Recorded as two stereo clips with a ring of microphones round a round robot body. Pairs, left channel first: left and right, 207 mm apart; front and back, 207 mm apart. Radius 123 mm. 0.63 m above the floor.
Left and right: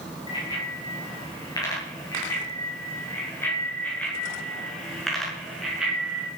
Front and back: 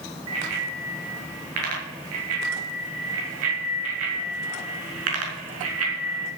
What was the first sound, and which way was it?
A bicycle bell, 160° left.